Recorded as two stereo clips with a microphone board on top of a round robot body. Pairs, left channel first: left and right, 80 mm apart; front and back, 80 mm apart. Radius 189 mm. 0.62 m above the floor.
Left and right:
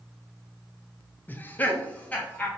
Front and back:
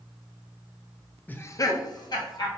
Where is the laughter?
50° left, 0.6 m; by 2.5 s 20° left, 1.5 m.